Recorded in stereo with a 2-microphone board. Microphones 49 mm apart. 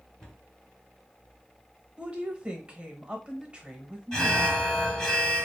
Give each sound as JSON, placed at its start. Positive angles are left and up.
{"t": 0.2, "sound": "a cupboard door", "side_deg": 5, "distance_m": 2.5}
{"t": 2.0, "sound": "a woman speaking", "side_deg": -20, "distance_m": 0.9}
{"t": 4.1, "sound": "an alarm", "side_deg": 15, "distance_m": 1.3}